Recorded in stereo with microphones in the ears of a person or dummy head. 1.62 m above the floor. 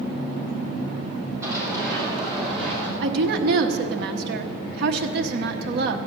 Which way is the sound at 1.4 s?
15° right (ahead or behind).